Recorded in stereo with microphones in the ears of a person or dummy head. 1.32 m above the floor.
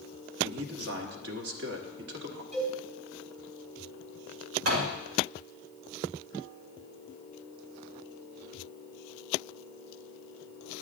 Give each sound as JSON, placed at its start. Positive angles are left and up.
{"t": 0.4, "sound": "a man speaking", "side_deg": -55, "distance_m": 1.2}
{"t": 2.5, "sound": "a cowbell", "side_deg": 5, "distance_m": 4.0}
{"t": 4.7, "sound": "a door slam", "side_deg": -80, "distance_m": 1.7}